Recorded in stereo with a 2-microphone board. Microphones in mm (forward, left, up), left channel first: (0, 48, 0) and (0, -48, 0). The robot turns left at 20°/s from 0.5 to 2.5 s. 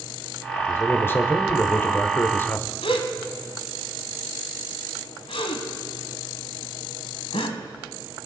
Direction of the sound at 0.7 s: 25° left (ahead or behind).